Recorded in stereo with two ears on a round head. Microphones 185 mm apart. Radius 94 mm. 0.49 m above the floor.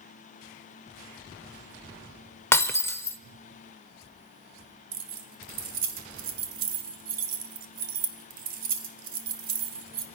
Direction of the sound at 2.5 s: 10° left (ahead or behind).